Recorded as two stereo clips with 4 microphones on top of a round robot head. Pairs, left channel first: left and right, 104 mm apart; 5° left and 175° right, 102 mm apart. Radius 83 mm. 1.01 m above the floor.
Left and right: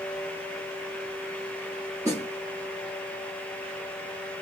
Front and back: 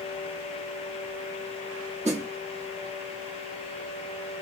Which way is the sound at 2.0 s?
165° right.